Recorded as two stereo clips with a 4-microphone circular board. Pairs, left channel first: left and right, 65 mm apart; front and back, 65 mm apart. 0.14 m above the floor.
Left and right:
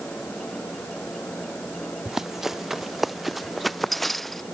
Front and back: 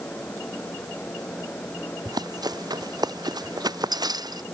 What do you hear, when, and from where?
2.0 s running footsteps: 175° right; by 4.4 s 175° left